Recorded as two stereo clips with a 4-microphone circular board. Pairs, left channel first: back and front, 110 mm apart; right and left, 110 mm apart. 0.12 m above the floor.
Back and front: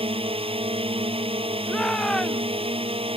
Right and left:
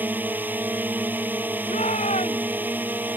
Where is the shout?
95° right.